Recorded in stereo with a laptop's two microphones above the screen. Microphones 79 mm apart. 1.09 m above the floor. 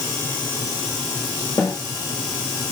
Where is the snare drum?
55° left (ahead or behind), 6 m.